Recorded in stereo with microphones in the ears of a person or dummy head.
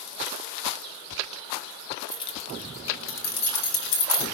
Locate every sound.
2.1 s keys jangling: 15° left (ahead or behind), 0.7 m; by 4.2 s 70° left (ahead or behind), 2.5 m